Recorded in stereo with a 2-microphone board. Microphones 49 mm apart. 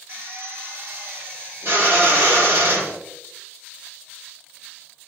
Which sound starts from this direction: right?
A drill, at 0.1 s.